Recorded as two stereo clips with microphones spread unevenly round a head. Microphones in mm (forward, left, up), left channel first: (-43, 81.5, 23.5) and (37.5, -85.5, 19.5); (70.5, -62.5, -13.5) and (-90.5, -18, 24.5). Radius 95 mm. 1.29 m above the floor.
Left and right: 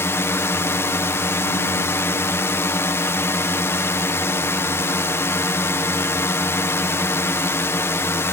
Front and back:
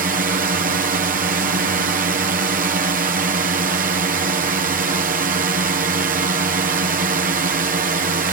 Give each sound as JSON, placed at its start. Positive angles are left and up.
{"t": 0.0, "sound": "a drone", "azimuth_deg": -175}